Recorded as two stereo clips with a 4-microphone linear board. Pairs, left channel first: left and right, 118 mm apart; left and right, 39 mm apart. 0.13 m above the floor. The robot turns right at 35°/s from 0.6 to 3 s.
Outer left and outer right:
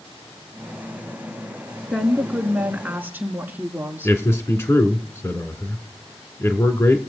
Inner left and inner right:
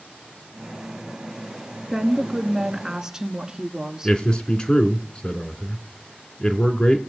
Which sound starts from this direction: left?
A man speaking, at 4.0 s.